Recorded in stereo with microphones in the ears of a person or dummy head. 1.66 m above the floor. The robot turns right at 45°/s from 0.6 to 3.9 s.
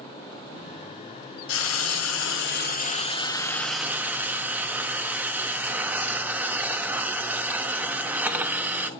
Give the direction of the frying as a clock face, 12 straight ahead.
10 o'clock.